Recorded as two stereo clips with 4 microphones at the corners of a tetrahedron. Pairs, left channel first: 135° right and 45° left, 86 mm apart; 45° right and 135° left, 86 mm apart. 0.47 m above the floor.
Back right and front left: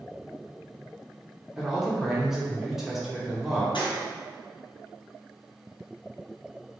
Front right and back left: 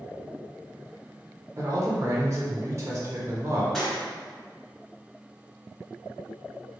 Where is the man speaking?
125° left, 1.0 m.